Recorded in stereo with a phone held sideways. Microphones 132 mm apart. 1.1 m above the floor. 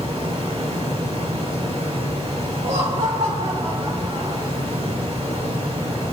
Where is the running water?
50° right (ahead or behind), 1.3 m.